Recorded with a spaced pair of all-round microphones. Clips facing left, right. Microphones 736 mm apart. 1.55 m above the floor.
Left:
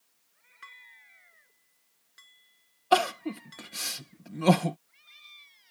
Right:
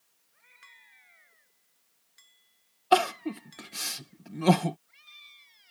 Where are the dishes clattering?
80° left.